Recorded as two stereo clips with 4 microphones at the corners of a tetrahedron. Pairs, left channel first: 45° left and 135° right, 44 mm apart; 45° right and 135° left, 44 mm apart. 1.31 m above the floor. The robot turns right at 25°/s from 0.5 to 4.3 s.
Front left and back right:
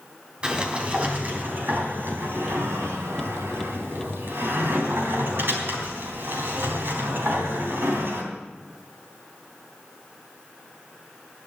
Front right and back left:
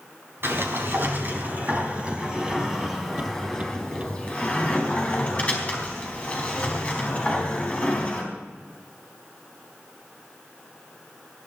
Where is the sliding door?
160° left, 4 m; by 8.3 s 105° right, 4 m.